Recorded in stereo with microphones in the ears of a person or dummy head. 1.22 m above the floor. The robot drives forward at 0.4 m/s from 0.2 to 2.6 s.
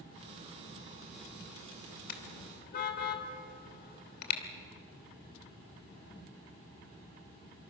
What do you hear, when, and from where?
2.1 s a car horn: 55° left (ahead or behind), 2.5 m; by 4.4 s 60° left (ahead or behind), 2.5 m